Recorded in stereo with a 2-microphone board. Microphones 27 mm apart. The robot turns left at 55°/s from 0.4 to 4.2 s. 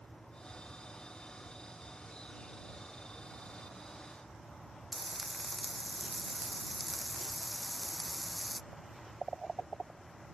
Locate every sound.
4.9 s frying: 5° left (ahead or behind)